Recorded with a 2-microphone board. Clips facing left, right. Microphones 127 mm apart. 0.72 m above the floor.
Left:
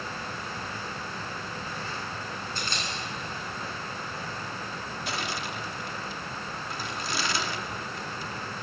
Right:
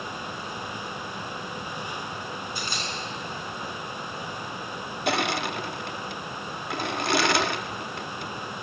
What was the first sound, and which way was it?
A camera shutter, 10° right (ahead or behind).